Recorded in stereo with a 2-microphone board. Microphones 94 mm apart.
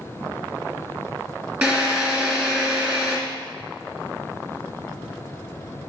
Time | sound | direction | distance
1.6 | a drill | 20° right (ahead or behind) | 2 m